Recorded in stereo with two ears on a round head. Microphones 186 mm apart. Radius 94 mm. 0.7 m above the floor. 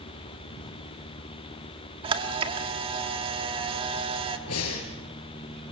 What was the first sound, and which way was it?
A camera shutter, 25° right (ahead or behind).